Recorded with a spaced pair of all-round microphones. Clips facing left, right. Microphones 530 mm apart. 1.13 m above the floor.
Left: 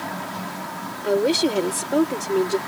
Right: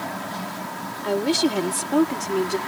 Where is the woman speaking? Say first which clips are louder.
Left 2 dB; 20° right (ahead or behind).